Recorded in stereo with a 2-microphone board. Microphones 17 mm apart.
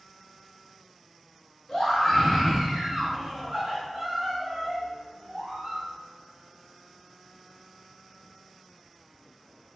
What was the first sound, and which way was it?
A scream, 15° left (ahead or behind).